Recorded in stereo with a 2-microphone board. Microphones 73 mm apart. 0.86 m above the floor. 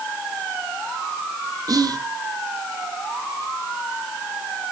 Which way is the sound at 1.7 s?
55° right (ahead or behind).